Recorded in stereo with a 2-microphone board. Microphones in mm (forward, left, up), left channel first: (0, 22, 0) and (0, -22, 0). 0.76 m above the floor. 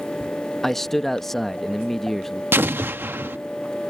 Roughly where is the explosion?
Right.